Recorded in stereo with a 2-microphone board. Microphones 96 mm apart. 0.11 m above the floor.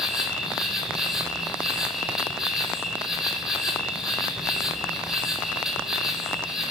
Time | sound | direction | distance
0.0 | an insect | 5° right (ahead or behind) | 2.5 m